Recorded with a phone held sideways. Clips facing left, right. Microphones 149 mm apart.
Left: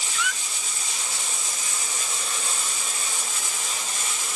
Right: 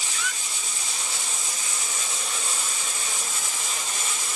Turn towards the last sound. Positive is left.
turn(degrees=-40)  # may be behind; listen again after turning